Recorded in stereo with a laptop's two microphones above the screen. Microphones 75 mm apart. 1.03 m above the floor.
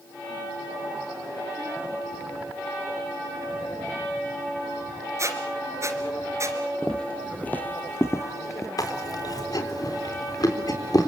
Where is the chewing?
60° left (ahead or behind), 3.5 m.